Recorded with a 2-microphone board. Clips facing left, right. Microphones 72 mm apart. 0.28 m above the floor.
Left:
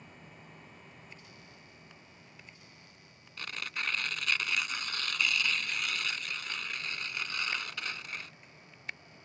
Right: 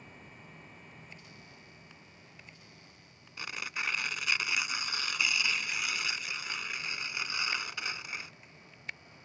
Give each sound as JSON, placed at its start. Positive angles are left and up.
{"t": 3.4, "sound": "tearing paper", "side_deg": -10}